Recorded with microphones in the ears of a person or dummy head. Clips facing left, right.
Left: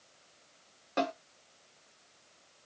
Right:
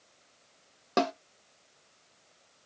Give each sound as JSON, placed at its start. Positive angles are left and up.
{"t": 1.0, "sound": "a snare drum", "side_deg": -60, "distance_m": 0.6}